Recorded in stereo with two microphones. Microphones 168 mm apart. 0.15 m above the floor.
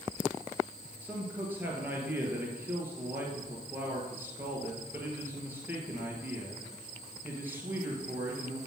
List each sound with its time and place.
1.0 s a man speaking: 10° right (ahead or behind), 2.5 m